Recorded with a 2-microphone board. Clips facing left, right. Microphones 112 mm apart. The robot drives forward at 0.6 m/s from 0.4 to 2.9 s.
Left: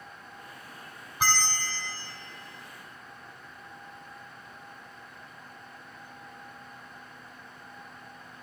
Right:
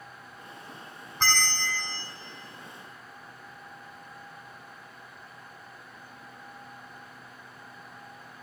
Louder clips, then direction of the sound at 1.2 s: Even; 10° left (ahead or behind).